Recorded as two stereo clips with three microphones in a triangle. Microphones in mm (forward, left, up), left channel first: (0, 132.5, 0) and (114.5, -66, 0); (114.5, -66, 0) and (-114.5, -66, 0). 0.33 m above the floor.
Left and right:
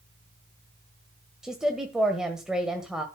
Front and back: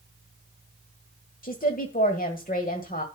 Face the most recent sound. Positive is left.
turn(degrees=25)